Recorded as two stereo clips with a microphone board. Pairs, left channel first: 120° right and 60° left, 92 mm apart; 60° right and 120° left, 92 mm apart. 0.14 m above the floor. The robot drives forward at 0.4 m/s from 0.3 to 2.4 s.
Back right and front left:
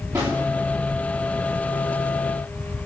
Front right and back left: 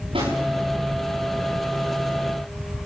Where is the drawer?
115° left, 8.5 m.